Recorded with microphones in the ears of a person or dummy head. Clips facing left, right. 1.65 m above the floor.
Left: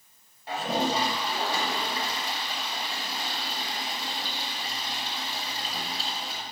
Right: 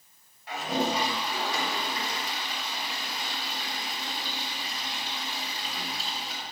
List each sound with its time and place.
0.5 s a toilet flushing: 30° left (ahead or behind), 8 m